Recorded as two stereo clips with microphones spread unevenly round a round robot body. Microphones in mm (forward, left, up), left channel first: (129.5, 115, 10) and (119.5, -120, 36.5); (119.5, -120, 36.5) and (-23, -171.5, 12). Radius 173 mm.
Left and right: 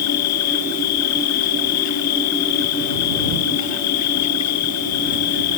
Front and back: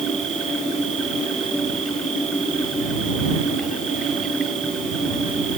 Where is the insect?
110° left.